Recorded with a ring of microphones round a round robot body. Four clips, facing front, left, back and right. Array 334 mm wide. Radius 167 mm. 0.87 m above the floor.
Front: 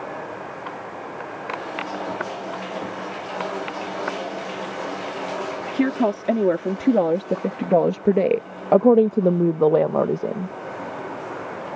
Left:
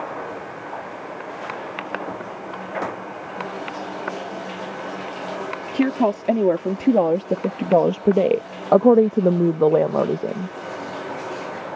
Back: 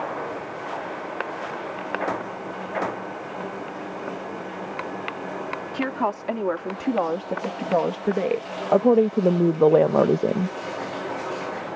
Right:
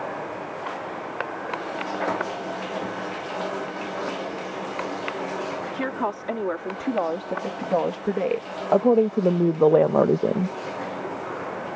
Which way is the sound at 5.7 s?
50° left.